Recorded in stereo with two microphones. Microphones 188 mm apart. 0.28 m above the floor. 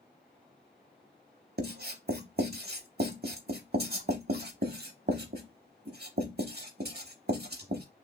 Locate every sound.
1.6 s writing: 60° right (ahead or behind), 0.7 m